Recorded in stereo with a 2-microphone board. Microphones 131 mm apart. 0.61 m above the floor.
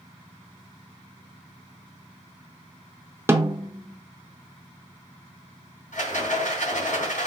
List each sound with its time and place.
3.3 s a snare drum: 20° right (ahead or behind), 0.7 m
5.9 s a rattle: 75° left (ahead or behind), 3 m